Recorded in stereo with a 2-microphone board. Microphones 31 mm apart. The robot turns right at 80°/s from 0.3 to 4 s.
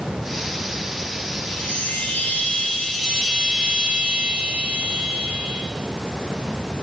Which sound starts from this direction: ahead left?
A chime, at 1.5 s.